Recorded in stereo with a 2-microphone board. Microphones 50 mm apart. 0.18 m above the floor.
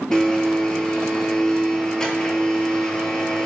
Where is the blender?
15° left (ahead or behind), 0.5 m.